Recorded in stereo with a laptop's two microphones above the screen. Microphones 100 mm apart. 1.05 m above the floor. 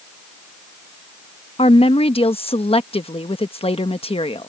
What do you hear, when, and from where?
1.6 s a woman speaking: 75° left (ahead or behind)